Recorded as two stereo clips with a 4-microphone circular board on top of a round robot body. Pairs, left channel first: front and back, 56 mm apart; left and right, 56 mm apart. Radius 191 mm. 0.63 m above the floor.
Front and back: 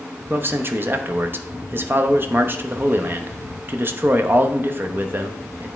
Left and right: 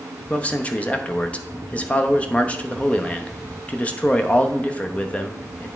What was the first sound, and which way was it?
A man speaking, 145° left.